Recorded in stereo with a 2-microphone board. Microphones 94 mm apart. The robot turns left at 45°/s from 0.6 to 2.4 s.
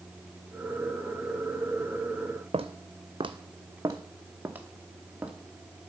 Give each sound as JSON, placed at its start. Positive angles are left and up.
{"t": 2.5, "sound": "footsteps", "side_deg": -80, "distance_m": 0.7}